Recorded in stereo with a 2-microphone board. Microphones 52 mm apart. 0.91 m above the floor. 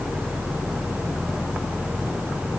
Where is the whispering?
No whispering in this recording.